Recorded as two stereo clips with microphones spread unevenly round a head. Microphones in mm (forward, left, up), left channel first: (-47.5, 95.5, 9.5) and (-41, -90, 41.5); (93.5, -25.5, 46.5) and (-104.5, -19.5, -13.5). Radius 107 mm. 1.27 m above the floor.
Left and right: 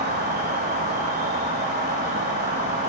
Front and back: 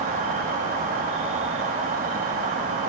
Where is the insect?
125° right, 1.2 m.